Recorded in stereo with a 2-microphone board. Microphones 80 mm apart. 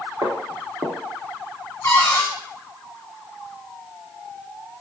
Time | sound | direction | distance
0.2 | footsteps | 40° right (ahead or behind) | 1.2 m
1.8 | a cupboard door | 35° left (ahead or behind) | 0.9 m